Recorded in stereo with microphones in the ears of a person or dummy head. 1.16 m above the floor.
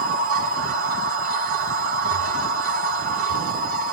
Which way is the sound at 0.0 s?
45° right (ahead or behind).